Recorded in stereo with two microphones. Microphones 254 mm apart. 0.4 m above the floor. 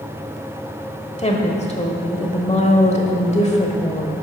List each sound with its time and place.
1.2 s a woman speaking: 25° left (ahead or behind), 1.3 m